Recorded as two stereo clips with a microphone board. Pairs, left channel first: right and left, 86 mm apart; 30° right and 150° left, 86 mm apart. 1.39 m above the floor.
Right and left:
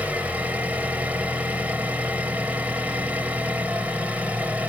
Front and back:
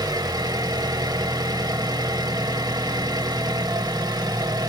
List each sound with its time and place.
0.0 s an engine running: 160° left, 1.7 m